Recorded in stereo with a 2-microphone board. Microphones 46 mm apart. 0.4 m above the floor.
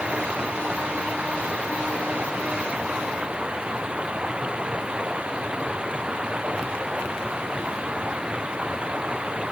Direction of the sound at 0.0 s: 20° right (ahead or behind).